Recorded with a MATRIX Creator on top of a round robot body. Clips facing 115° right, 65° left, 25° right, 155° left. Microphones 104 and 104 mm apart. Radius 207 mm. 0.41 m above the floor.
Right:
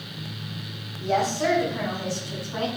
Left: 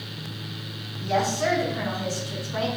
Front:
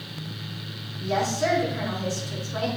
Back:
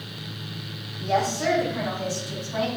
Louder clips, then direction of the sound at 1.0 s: Right 1 dB, back 1 dB; 155° right.